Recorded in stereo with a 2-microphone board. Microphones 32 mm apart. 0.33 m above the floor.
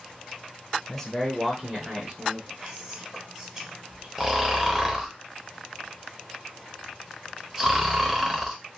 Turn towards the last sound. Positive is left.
turn(degrees=-10)  # may be behind; listen again after turning